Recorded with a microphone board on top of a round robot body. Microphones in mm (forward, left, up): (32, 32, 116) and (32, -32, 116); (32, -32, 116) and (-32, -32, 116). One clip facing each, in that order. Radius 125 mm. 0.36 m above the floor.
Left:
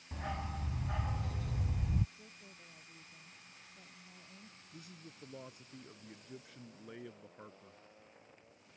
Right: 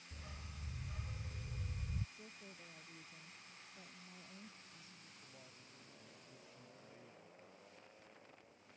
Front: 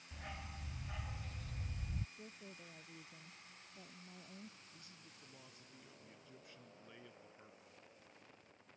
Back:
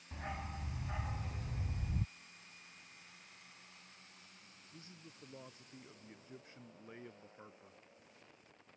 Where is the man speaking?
115° left.